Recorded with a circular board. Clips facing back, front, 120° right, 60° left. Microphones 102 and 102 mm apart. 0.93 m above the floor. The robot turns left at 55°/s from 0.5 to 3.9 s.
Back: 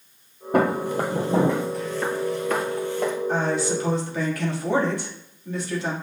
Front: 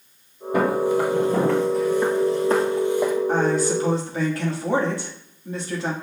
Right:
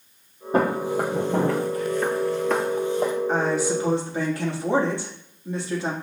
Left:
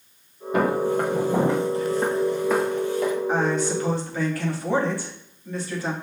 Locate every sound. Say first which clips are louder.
0.5 s footsteps: front 2 dB, left 1 dB; 165° right, 1.6 m; by 3.1 s 80° right, 1.3 m
3.3 s a woman speaking: front 3 dB, even; 20° right, 1.6 m; by 5.9 s 55° right, 1.6 m